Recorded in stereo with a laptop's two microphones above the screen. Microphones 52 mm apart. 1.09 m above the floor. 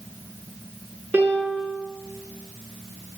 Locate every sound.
1.1 s a piano: 45° right (ahead or behind), 4 m